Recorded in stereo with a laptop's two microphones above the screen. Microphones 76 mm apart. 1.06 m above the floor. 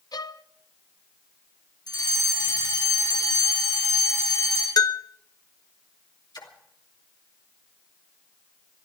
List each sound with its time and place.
0.1 s a violin: 60° left (ahead or behind), 0.5 m
1.9 s a fire alarm: 65° left (ahead or behind), 5.5 m
4.8 s a bell: 60° left (ahead or behind), 0.6 m
6.3 s a splash: 70° left (ahead or behind), 2.5 m